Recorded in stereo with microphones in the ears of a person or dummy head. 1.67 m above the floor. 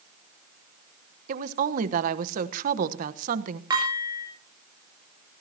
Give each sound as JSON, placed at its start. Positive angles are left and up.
{"t": 1.3, "sound": "a woman speaking", "side_deg": -55, "distance_m": 1.1}
{"t": 3.7, "sound": "dishes clattering", "side_deg": -20, "distance_m": 8.0}